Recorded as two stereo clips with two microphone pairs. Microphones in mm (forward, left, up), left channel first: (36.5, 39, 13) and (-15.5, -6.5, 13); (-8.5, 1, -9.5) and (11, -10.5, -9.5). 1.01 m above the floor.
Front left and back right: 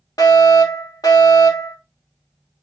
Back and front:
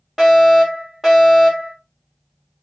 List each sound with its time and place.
0.2 s a fire alarm: 50° left, 3 m